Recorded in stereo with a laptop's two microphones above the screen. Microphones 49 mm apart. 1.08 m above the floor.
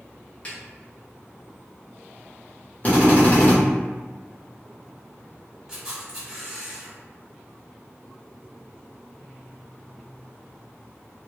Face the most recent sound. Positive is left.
turn(degrees=-15)  # may be behind; listen again after turning